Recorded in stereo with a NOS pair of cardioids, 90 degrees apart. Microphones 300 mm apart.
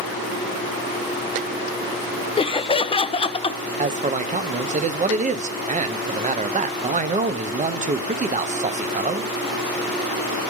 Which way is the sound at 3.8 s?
25° right.